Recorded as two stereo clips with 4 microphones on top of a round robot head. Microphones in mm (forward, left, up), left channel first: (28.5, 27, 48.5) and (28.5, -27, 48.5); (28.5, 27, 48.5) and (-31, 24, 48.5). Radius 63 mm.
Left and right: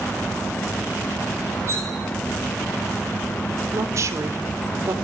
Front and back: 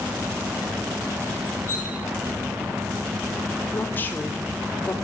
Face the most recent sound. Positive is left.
turn(degrees=-60)